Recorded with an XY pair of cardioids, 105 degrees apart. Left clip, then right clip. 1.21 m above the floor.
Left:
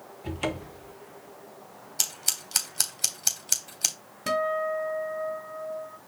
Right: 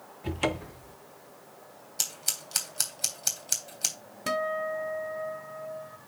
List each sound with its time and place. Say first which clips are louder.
0.2 s a cupboard door: right 2 dB; 20° right, 0.9 m
2.0 s scissors: left 3 dB; 20° left, 3 m
4.3 s a guitar: left 3 dB; straight ahead, 1.3 m